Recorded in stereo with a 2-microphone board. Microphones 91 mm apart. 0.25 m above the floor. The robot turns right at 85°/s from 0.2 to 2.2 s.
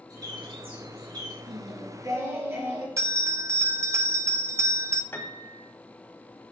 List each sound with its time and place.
0.1 s a bird: 135° right, 2.5 m; by 1.4 s 35° right, 2.5 m
1.5 s singing: 100° right, 2 m; by 2.9 s 40° right, 2 m
3.0 s a bell: 35° right (ahead or behind), 0.6 m
5.1 s a piano: 30° left (ahead or behind), 1.2 m